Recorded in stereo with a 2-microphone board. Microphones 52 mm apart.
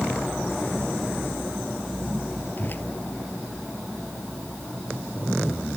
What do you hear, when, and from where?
2.6 s a whoosh: 40° left (ahead or behind)